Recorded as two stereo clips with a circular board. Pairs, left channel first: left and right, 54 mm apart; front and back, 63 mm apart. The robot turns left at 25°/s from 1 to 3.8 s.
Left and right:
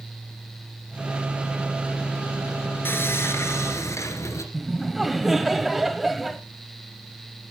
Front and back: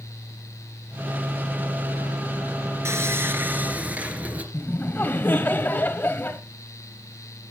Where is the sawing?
140° left, 2.5 m; by 4.4 s 115° left, 2.5 m.